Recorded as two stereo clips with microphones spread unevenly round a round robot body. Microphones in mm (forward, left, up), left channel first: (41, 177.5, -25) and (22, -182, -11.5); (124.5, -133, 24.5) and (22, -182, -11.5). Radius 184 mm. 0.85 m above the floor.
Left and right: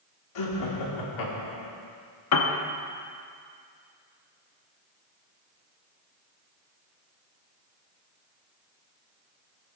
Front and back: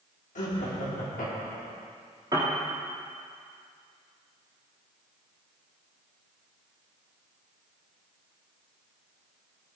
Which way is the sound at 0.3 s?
55° left.